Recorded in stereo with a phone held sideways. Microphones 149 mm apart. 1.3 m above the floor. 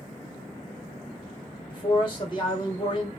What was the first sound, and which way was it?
A man speaking, 35° left (ahead or behind).